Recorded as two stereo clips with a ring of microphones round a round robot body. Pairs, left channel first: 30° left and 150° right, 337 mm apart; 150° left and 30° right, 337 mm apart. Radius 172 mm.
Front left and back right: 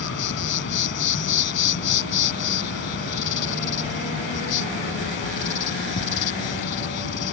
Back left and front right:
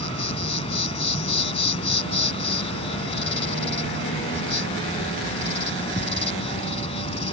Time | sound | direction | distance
0.0 | an insect | 80° left | ?